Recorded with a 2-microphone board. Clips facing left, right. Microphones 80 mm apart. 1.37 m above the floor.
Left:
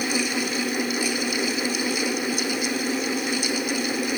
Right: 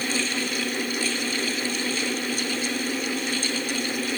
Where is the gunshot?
No gunshot in this recording.